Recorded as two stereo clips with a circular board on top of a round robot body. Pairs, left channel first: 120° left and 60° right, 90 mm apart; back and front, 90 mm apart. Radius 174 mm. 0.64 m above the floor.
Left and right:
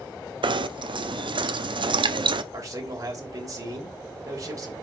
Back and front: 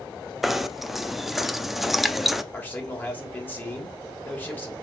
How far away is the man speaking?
About 3 m.